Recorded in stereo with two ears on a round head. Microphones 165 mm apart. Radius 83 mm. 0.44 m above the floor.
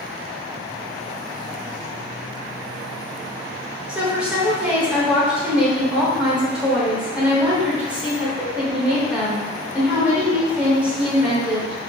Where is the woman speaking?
5° right (ahead or behind), 1.2 m.